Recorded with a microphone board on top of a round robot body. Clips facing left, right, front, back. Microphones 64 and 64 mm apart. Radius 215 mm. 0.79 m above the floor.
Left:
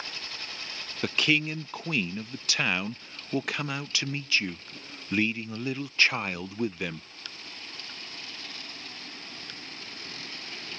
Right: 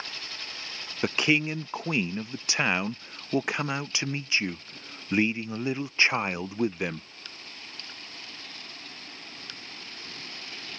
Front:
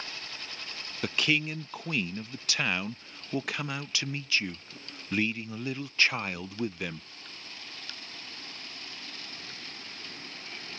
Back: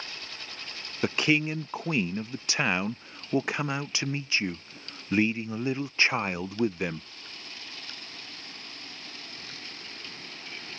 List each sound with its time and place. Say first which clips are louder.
1.0 s a man speaking: right 2 dB, back 4 dB; 140° right